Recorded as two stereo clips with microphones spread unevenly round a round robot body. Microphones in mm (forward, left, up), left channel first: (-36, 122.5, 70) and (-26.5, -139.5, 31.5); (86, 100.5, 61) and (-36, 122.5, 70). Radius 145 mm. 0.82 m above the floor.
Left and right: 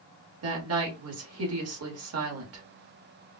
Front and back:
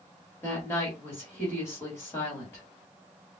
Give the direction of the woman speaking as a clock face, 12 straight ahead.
3 o'clock.